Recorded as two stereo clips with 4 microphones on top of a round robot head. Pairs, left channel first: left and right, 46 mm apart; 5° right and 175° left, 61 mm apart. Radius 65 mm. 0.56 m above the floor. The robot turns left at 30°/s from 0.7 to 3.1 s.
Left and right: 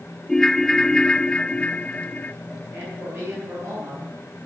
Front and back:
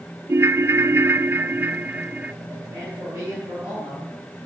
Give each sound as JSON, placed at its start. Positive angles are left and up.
{"t": 0.3, "sound": "a ringtone", "azimuth_deg": 160, "distance_m": 0.6}
{"t": 2.7, "sound": "a man speaking", "azimuth_deg": -115, "distance_m": 9.5}